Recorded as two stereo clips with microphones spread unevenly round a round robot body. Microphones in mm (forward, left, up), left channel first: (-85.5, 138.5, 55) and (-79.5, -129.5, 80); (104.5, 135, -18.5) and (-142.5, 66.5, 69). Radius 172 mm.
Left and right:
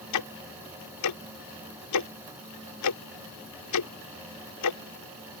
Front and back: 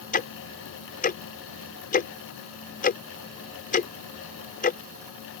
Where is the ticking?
75° left.